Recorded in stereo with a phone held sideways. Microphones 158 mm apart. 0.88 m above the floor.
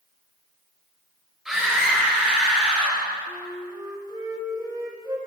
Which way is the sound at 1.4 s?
Centre (ahead or behind).